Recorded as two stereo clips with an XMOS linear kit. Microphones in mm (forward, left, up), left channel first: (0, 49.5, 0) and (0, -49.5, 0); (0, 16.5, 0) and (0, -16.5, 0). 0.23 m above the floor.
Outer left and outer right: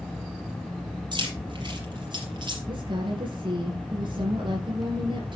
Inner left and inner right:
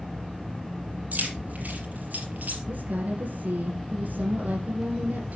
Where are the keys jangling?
50° right (ahead or behind), 5 m.